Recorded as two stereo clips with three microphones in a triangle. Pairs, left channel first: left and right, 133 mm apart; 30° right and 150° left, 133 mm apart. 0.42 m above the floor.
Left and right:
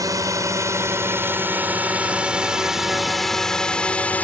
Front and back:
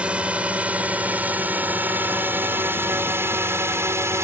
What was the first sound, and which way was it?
A drone, 135° right.